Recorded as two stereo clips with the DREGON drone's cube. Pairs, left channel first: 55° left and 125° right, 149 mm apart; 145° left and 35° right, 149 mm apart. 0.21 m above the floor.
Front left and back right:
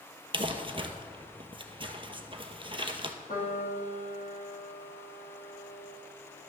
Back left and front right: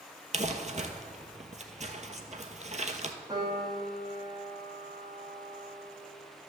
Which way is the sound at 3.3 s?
30° left.